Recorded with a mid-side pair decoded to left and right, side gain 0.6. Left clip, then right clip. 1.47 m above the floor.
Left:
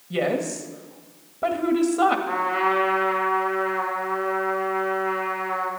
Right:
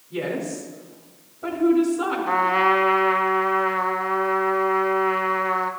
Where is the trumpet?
35° right, 1.7 m.